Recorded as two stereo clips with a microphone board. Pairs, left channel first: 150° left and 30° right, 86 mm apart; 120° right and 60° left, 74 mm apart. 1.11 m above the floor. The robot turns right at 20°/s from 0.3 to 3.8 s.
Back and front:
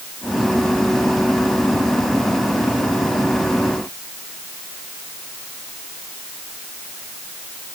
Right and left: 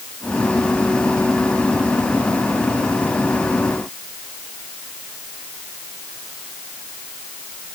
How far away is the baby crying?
I don't hear a baby crying.